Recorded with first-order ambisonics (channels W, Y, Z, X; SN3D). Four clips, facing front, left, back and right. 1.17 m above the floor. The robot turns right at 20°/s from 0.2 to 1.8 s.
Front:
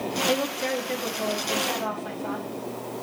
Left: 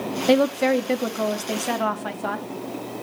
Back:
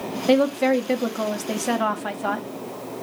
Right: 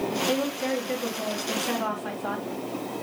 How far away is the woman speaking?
About 0.9 m.